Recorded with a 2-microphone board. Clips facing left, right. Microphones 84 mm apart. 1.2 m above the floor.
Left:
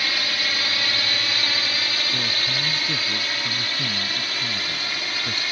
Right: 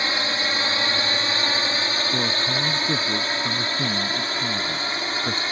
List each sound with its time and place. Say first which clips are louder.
0.0 s a drone: right 3 dB; 25° right (ahead or behind); by 5.5 s 30° right (ahead or behind)
2.1 s a man speaking: right 4 dB; 30° right (ahead or behind)